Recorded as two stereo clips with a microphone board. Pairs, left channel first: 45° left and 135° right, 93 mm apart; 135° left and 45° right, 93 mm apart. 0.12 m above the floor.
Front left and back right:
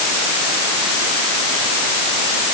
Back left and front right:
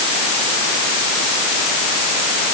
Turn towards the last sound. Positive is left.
No sound to turn to.